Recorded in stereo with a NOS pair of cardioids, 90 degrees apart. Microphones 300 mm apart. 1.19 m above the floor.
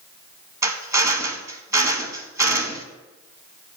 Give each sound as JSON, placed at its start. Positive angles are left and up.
{"t": 0.6, "sound": "a drill", "azimuth_deg": -10, "distance_m": 0.8}